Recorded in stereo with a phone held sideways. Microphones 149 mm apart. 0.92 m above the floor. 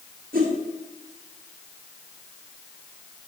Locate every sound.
0.3 s a whoosh: 75° right (ahead or behind), 1.5 m